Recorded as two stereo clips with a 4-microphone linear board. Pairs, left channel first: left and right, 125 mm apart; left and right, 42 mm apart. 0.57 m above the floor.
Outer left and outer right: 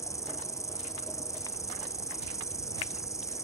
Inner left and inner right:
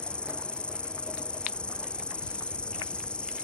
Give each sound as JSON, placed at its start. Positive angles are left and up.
{"t": 0.0, "sound": "an insect", "side_deg": 25}